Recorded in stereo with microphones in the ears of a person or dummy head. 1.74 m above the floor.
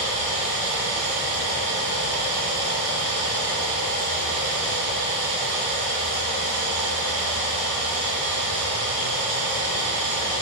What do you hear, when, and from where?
0.0 s running water: 60° right (ahead or behind), 0.7 m